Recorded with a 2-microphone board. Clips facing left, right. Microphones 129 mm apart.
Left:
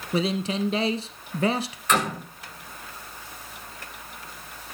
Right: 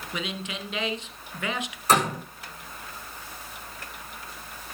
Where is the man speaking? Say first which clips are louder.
Left 10 dB; 35° left (ahead or behind), 1.2 m.